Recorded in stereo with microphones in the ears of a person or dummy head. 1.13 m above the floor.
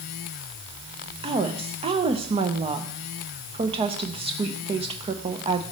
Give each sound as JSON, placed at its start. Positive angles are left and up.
{"t": 1.2, "sound": "a woman speaking", "side_deg": -25, "distance_m": 0.6}